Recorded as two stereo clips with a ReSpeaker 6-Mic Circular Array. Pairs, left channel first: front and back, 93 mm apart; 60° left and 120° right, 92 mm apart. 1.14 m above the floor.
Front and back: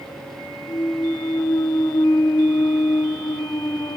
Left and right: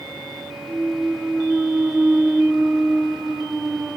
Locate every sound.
0.7 s a clunk: 40° right, 0.7 m